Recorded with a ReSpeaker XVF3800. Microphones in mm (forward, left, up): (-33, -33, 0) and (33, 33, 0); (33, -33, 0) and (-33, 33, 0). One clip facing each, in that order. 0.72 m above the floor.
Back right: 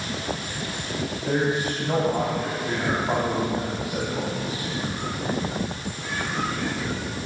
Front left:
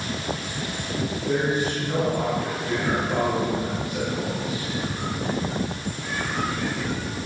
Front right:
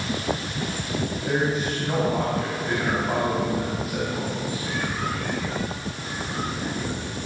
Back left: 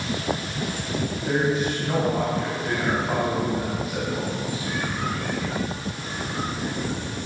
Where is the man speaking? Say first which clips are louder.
Even, back left 2 dB; 135° right, 3.5 m.